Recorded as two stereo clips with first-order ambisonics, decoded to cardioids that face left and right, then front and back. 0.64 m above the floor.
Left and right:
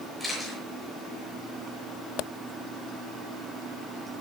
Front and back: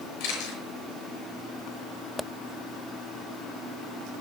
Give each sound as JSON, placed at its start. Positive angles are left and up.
{"t": 0.2, "sound": "a camera shutter", "azimuth_deg": 5, "distance_m": 6.5}